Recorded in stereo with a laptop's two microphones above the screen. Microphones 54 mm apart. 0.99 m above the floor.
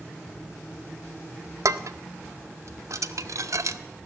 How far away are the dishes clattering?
About 0.6 m.